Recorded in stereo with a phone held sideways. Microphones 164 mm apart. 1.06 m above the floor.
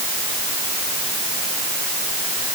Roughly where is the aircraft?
No aircraft in this recording.